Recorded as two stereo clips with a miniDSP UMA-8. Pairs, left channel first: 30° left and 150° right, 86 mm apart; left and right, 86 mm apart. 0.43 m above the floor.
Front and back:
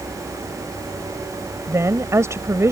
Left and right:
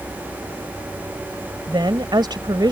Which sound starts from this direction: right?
A woman speaking, at 1.7 s.